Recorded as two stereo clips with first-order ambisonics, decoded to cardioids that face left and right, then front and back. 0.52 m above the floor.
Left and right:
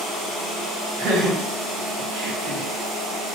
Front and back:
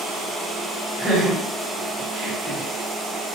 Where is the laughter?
90° right, 1.6 m.